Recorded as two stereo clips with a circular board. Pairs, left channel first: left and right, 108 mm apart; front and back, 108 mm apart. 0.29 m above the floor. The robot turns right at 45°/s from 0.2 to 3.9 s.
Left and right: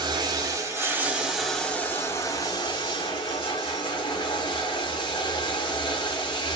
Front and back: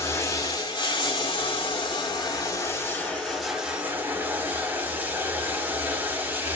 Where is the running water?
55° right, 1.3 m; by 6.6 s 110° left, 1.3 m.